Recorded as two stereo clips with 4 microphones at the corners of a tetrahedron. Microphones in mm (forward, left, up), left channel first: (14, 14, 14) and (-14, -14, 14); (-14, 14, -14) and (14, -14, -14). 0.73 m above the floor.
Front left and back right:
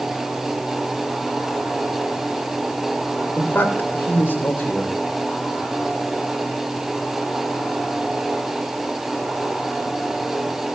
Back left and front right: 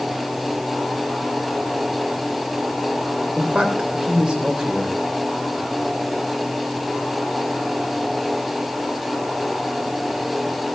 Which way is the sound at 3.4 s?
15° left.